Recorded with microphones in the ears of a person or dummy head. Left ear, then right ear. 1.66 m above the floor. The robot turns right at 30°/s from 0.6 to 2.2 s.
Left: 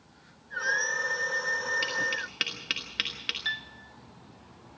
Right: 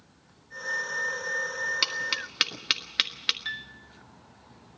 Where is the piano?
5° left (ahead or behind), 1.3 m.